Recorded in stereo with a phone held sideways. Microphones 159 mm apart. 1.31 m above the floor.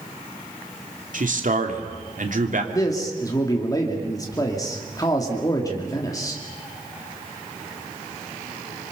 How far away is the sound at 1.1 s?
About 2.5 m.